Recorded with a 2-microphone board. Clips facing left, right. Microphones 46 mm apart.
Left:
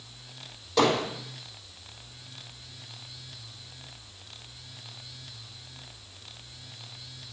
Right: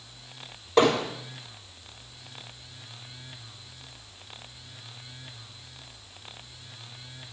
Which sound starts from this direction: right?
Hammering, at 0.8 s.